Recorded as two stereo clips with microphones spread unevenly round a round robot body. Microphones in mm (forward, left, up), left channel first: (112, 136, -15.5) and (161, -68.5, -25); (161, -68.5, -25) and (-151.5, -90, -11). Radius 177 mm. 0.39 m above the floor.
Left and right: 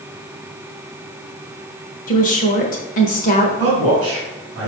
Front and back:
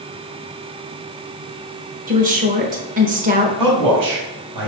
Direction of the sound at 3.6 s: 165° right.